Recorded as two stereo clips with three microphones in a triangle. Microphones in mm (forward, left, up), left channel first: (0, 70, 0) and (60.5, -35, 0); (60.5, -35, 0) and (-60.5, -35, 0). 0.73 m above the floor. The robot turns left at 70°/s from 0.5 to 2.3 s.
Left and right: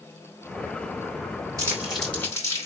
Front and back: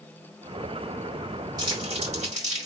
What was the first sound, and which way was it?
Crumpling, 120° right.